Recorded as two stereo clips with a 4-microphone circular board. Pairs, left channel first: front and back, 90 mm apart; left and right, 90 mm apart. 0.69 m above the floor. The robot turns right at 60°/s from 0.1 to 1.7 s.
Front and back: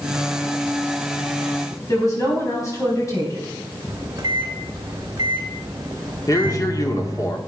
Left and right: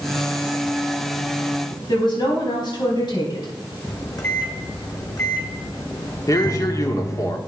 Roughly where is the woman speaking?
Ahead left.